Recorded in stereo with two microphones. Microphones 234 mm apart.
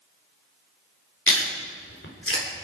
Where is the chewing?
60° left (ahead or behind), 2.5 m.